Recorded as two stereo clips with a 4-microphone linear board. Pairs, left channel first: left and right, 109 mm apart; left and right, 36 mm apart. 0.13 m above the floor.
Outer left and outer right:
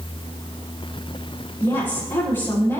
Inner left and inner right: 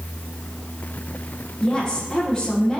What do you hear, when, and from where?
1.6 s a woman speaking: 20° left (ahead or behind), 5 m